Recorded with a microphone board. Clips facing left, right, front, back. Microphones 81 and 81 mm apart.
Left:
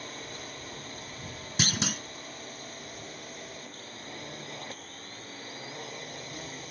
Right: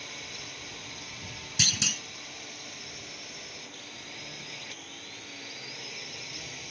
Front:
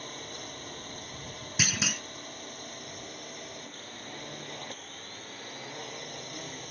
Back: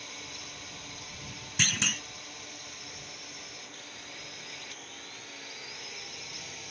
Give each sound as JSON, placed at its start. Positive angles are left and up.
{"t": 0.0, "sound": "a drone", "azimuth_deg": 40}
{"t": 1.6, "sound": "a clunk", "azimuth_deg": 80}